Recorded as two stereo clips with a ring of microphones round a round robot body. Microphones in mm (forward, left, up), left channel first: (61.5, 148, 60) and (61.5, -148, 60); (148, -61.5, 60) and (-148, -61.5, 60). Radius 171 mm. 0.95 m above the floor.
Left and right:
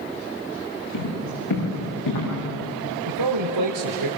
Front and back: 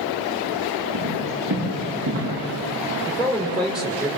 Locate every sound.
0.9 s footsteps: 125° left, 10 m; by 2.3 s 120° left, 9 m
3.0 s a man speaking: 90° right, 3 m